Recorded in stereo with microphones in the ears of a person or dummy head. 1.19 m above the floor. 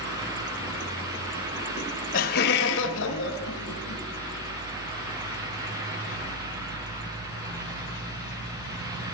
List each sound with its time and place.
1.8 s laughter: 35° left (ahead or behind), 1.1 m; by 4.0 s 85° left, 1.8 m